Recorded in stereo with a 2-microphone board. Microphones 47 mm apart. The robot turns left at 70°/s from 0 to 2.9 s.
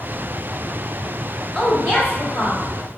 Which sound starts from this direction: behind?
A woman speaking, at 1.6 s.